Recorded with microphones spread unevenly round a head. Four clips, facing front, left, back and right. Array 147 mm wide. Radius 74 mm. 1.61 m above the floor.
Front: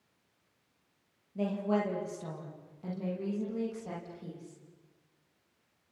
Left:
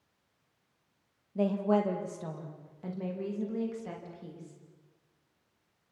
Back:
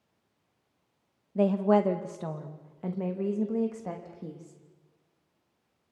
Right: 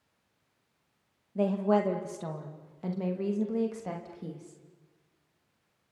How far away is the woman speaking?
About 2.0 m.